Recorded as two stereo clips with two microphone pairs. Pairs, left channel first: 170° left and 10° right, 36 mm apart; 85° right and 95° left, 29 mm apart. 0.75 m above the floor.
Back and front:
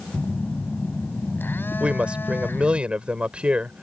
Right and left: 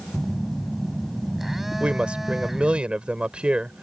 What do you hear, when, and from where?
0.1 s a phone buzzing: 175° left
1.8 s a woman speaking: 50° left